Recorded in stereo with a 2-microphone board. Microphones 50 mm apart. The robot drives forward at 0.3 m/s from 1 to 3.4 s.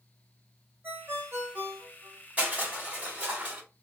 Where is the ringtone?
55° right (ahead or behind), 1.3 m; by 2.2 s 65° right (ahead or behind), 1.2 m.